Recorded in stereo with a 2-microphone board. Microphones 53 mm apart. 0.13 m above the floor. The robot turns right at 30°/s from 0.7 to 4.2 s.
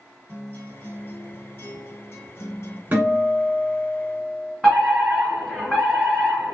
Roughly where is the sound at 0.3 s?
Ahead left.